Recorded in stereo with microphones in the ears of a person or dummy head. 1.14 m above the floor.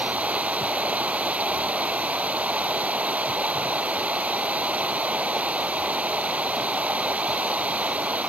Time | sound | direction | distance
0.0 | running water | 10° right (ahead or behind) | ?